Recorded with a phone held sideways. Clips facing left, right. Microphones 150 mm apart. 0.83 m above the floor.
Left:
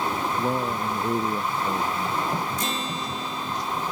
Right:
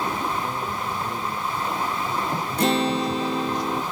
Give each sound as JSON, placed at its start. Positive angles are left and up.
{"t": 0.4, "sound": "a man speaking", "side_deg": 45}
{"t": 2.6, "sound": "a guitar", "side_deg": -65}